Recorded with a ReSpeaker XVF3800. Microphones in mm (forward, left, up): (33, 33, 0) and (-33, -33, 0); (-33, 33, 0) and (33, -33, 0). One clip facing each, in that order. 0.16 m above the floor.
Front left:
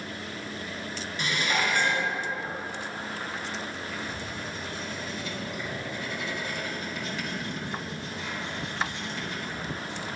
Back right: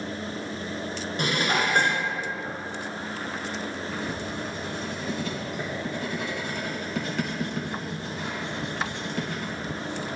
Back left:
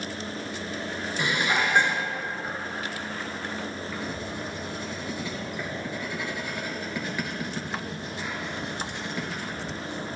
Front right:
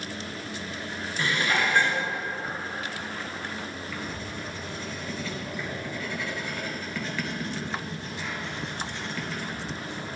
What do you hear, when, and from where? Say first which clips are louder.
1.2 s dishes clattering: back right 3 dB, even; 155° right, 1.6 m
3.9 s writing: back right 4 dB, back left 2 dB; 155° right, 2.5 m